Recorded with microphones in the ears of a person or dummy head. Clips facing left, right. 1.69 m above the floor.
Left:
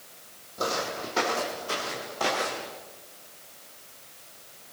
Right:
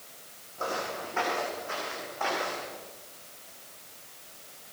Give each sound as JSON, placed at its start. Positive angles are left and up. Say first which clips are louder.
{"t": 0.6, "sound": "footsteps", "louder": "left 3 dB", "side_deg": 50, "distance_m": 4.5}